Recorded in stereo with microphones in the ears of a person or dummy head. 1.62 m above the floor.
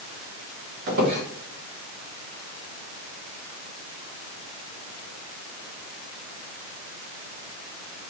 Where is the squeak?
50° right (ahead or behind), 1.0 m.